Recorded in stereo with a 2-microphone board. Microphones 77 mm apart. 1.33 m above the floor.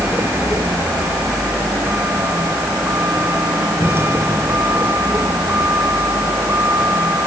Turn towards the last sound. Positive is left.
turn(degrees=-35)  # may be behind; listen again after turning